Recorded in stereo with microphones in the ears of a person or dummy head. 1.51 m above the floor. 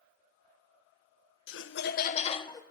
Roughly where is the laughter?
Left.